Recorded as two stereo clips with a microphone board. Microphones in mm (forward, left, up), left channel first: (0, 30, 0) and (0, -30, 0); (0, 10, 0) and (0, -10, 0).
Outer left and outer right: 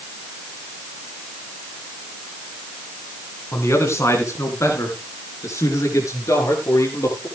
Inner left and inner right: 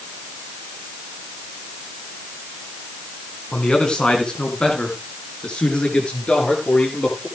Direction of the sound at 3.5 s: 50° left (ahead or behind).